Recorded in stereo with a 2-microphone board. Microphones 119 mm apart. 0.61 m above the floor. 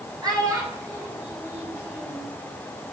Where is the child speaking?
30° right (ahead or behind), 2 m; by 2.3 s 5° right (ahead or behind), 3 m.